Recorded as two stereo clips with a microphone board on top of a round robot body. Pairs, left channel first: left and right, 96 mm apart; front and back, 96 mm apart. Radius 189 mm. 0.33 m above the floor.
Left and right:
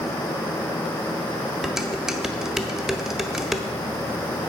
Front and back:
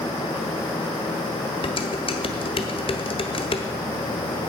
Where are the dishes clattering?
5° right, 1.5 m.